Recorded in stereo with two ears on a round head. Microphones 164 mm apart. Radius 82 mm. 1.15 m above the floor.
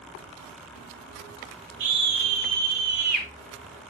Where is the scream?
85° right, 3.5 m; by 3.3 s 50° right (ahead or behind), 3 m.